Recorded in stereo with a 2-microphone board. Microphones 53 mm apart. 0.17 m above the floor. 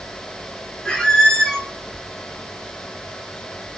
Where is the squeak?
15° left (ahead or behind), 0.9 m.